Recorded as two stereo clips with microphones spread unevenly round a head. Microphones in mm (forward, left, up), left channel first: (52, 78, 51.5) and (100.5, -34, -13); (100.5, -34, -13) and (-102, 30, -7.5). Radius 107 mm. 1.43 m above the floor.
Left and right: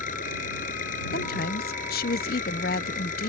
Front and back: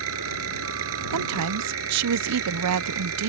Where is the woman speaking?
150° left.